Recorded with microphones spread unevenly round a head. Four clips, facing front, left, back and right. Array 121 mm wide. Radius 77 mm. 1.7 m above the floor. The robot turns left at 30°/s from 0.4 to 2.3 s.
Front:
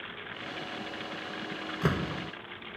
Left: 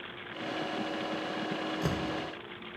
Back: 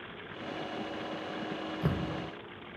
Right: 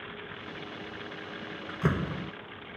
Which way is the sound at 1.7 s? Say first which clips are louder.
Right 7 dB, front 5 dB; 20° right.